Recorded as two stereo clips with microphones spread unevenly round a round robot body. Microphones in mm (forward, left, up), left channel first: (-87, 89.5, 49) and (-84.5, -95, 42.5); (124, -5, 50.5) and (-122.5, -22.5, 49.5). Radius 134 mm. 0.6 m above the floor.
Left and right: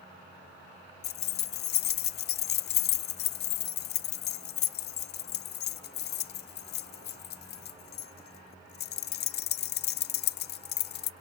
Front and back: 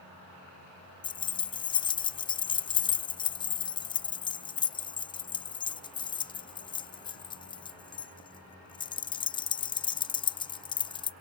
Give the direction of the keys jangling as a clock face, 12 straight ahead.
10 o'clock.